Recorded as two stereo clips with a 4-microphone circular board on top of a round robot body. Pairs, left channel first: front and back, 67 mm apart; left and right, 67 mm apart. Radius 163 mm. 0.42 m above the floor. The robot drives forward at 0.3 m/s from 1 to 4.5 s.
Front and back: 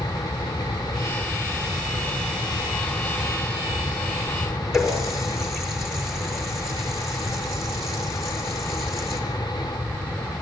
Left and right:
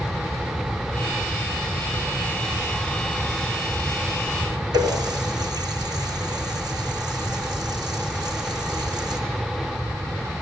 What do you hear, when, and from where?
4.7 s a running tap: 95° right, 6 m